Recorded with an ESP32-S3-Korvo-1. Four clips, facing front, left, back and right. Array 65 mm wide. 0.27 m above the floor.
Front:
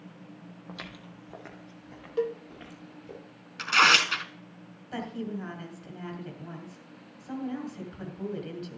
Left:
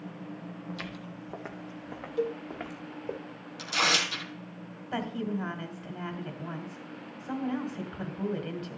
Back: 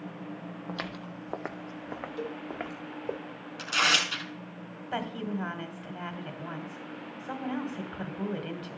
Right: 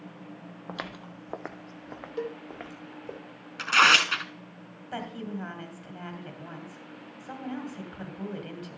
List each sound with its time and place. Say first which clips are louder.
0.7 s footsteps: right 4 dB, back 6 dB; 120° right, 0.7 m; by 3.2 s 175° left, 1.4 m
2.2 s a cowbell: left 4 dB, front 10 dB; 25° right, 0.6 m
3.6 s tearing paper: right 8 dB, front 5 dB; 60° right, 0.9 m
4.9 s a woman speaking: left 3 dB, back 2 dB; 170° left, 1.7 m